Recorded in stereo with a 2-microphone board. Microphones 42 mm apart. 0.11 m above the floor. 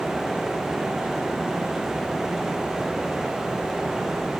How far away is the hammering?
No hammering in this recording.